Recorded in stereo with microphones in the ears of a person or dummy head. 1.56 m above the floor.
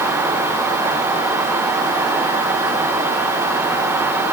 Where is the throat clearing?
I don't hear throat clearing.